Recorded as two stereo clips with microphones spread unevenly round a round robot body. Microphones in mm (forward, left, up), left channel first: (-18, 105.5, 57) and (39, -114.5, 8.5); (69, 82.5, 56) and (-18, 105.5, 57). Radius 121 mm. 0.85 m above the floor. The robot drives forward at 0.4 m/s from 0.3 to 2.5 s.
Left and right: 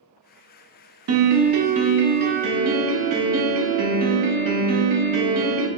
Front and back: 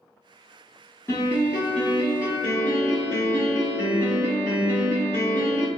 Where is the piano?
85° right, 0.6 m; by 5.7 s 130° right, 0.8 m.